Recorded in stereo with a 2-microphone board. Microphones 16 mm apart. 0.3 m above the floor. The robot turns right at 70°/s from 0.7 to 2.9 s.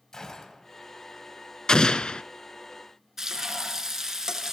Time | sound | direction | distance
0.1 | a gunshot | 35° left (ahead or behind) | 2 m
1.7 | an explosion | 45° left | 0.5 m
3.2 | frying | 30° right (ahead or behind) | 1.7 m